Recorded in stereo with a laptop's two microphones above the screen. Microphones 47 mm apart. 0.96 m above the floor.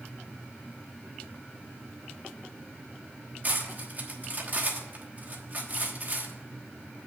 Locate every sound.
3.4 s cutlery clinking: 40° right (ahead or behind), 1.1 m